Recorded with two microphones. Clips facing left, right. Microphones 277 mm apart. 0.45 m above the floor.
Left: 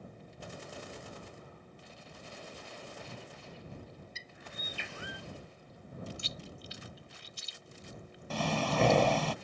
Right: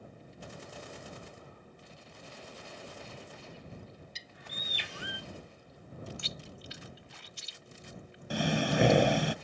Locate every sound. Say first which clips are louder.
4.2 s a bird: even; 75° right (ahead or behind)
6.2 s chewing: even; 65° right (ahead or behind)
8.3 s breathing: right 3 dB; 15° right (ahead or behind)